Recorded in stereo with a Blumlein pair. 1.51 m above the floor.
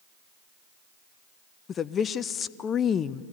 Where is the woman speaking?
25° left, 0.6 m.